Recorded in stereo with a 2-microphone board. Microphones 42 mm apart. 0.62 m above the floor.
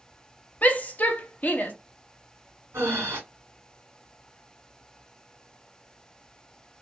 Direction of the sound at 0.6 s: 40° left (ahead or behind).